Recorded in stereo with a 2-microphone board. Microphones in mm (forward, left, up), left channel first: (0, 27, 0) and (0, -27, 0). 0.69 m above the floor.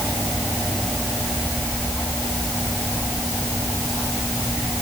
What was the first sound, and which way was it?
Only background noise.